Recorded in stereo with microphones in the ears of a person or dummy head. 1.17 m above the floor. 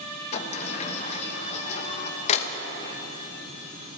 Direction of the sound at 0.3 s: 40° left (ahead or behind).